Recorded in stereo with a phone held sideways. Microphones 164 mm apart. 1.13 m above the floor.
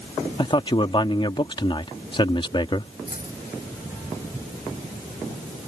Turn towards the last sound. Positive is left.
turn(degrees=60)  # may be behind; listen again after turning